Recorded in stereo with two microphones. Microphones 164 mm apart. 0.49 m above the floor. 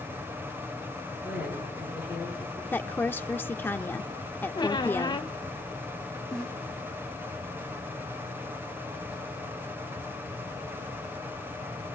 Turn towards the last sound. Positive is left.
turn(degrees=5)  # may be behind; listen again after turning